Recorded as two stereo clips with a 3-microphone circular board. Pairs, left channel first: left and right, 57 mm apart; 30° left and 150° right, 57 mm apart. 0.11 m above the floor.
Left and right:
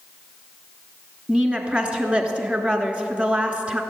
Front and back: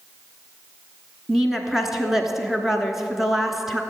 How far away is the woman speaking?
About 1.1 m.